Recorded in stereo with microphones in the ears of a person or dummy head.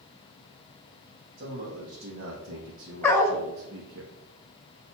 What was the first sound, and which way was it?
A man speaking, 55° right (ahead or behind).